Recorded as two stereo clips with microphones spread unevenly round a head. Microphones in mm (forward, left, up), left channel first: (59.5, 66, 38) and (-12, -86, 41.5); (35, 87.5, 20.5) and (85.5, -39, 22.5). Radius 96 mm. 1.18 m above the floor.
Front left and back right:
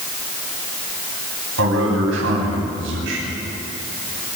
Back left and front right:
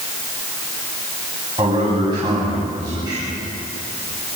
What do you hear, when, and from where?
1.6 s a man speaking: 140° right, 9.5 m